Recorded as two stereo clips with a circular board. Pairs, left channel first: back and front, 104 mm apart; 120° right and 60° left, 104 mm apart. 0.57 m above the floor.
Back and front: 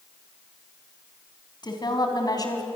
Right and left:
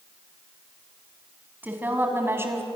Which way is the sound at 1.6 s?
135° left.